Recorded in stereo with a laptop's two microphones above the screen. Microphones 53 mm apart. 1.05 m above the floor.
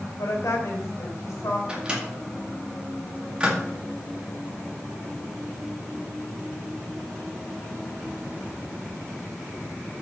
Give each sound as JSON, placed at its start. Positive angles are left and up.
{"t": 0.2, "sound": "a woman speaking", "side_deg": 75, "distance_m": 3.5}
{"t": 1.7, "sound": "a microwave", "side_deg": -20, "distance_m": 2.0}